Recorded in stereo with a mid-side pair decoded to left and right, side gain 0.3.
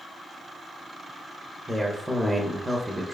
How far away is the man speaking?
About 0.5 m.